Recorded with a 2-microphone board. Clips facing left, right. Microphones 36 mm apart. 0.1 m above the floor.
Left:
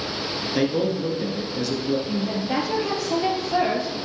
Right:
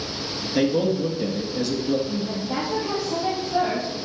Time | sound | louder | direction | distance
0.6 | a man speaking | right 2 dB | 5° left (ahead or behind) | 1.6 m
2.1 | a woman speaking | left 2 dB | 60° left (ahead or behind) | 2.5 m